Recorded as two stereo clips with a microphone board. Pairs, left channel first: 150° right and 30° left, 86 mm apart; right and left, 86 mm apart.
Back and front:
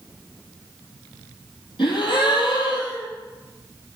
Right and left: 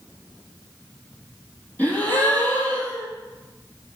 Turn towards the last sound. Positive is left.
turn(degrees=-160)